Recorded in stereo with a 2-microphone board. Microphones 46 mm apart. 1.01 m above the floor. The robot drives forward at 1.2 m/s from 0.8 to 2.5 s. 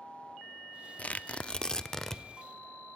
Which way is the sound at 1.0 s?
30° left (ahead or behind).